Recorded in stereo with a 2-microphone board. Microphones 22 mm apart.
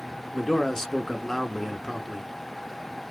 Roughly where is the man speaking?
Left.